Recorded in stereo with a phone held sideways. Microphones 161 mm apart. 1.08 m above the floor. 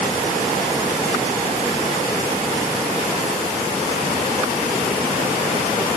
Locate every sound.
Only background noise.